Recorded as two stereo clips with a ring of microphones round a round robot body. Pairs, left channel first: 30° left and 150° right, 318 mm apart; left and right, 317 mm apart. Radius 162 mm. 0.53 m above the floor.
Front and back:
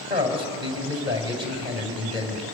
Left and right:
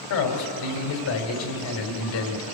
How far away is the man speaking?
About 3.5 m.